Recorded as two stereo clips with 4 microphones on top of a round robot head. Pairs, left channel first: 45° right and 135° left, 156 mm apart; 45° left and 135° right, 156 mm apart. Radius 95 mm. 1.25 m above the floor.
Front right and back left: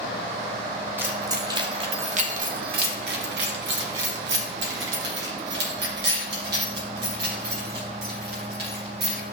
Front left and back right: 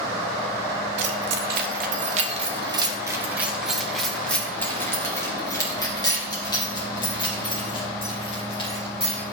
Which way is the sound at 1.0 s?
150° right.